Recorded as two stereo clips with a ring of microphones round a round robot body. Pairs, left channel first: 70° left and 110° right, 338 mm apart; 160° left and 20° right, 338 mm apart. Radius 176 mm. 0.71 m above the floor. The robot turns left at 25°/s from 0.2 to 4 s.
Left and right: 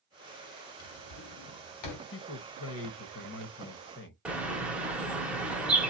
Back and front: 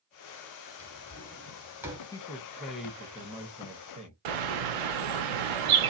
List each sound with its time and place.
0.8 s a drawer: 90° left, 1.4 m; by 2.0 s 55° left, 1.4 m
2.1 s a man speaking: 85° left, 0.9 m; by 4.2 s 35° left, 0.9 m
4.2 s a bird: 25° right, 0.8 m